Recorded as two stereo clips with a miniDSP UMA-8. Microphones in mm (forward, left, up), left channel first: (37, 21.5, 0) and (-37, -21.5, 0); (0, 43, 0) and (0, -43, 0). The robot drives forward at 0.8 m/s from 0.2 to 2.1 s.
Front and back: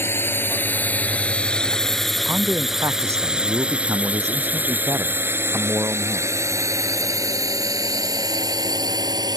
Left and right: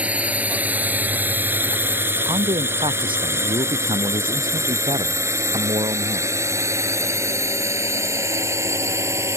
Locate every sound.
0.0 s a drone: 20° right; by 9.4 s 135° right
2.2 s a man speaking: 95° right